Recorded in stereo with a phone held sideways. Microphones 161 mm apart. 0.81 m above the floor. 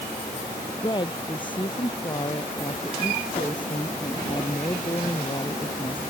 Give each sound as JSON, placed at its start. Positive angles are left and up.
{"t": 0.8, "sound": "a woman speaking", "side_deg": 30}